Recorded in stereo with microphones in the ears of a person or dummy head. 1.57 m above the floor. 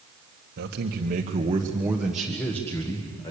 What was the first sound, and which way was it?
A man speaking, 60° right (ahead or behind).